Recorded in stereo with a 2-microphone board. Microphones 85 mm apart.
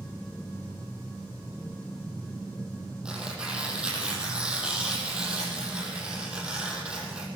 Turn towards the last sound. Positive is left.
turn(degrees=-15)  # may be behind; listen again after turning